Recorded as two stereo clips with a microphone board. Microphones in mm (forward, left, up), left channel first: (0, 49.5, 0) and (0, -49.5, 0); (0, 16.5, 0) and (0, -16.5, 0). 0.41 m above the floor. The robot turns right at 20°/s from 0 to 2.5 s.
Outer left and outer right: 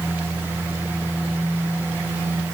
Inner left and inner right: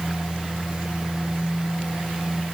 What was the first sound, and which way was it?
Only background noise.